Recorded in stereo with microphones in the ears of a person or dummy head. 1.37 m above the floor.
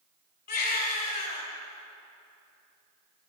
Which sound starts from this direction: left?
A baby crying, at 0.5 s.